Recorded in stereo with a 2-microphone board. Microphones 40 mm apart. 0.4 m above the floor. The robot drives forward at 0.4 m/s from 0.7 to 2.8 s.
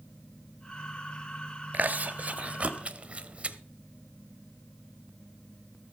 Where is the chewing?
45° right (ahead or behind), 0.8 m; by 3.6 s 30° right (ahead or behind), 1.0 m.